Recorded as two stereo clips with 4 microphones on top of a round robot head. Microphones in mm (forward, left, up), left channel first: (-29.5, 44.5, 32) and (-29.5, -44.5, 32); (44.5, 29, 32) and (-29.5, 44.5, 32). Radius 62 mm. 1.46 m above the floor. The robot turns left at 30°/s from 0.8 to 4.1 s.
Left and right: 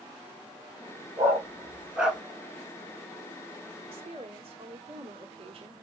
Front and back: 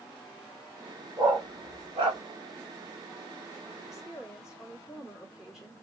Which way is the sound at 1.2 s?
145° right.